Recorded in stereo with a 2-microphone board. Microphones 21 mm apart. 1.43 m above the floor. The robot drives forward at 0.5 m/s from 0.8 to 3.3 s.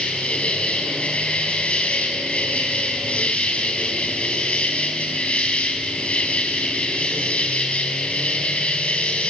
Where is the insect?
75° left (ahead or behind), 4 m.